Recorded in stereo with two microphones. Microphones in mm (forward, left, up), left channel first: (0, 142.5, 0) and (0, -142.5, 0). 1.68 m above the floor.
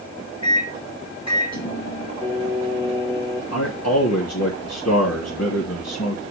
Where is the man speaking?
60° left (ahead or behind), 3 m.